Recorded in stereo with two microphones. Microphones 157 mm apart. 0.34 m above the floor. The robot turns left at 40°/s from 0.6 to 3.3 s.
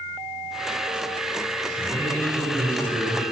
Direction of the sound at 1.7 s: 55° right.